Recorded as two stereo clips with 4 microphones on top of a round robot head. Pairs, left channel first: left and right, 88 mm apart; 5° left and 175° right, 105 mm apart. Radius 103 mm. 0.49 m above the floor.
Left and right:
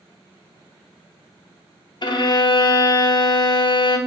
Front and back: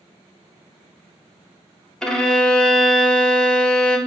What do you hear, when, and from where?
2.0 s a violin: 85° left, 0.6 m